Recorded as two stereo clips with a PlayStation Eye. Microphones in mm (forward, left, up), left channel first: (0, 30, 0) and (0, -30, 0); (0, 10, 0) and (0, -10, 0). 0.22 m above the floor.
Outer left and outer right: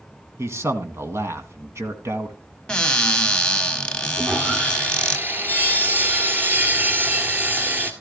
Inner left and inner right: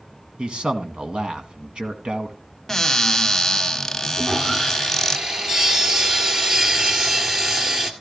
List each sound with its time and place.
0.4 s a man speaking: 50° right (ahead or behind), 1.7 m
2.7 s a cupboard door: 15° left (ahead or behind), 0.9 m
4.2 s sawing: 30° right (ahead or behind), 1.8 m